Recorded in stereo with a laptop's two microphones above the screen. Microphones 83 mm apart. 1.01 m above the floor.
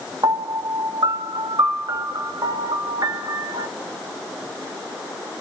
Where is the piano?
55° right (ahead or behind), 1.1 m.